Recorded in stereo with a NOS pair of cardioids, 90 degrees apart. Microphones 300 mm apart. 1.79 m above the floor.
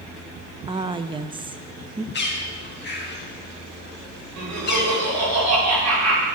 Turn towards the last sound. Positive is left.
turn(degrees=-65)